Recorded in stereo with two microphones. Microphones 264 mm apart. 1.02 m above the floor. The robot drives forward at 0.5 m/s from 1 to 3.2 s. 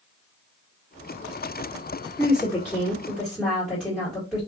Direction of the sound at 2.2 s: 10° left (ahead or behind).